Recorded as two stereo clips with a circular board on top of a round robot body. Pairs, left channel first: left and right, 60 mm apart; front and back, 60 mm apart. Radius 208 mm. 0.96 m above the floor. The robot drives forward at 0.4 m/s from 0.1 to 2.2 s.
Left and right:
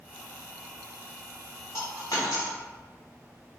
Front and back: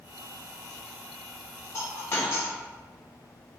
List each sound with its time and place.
1.7 s a dropped coin: 45° left, 1.4 m; by 2.5 s 55° left, 1.3 m